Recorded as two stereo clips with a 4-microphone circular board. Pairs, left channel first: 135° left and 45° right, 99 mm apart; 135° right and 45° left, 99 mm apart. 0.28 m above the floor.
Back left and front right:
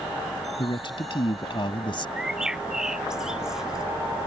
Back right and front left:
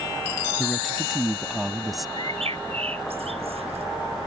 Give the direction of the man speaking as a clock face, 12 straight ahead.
8 o'clock.